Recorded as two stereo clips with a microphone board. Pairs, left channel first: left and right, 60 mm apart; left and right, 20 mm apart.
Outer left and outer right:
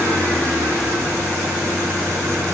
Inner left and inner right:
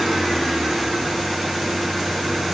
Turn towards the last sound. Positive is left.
turn(degrees=25)  # may be behind; listen again after turning